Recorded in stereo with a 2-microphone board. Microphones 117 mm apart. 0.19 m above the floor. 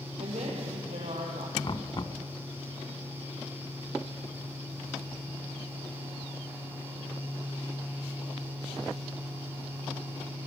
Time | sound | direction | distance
0.2 | a woman speaking | 70° right (ahead or behind) | 5.5 m
1.6 | knocking | 45° left (ahead or behind) | 0.9 m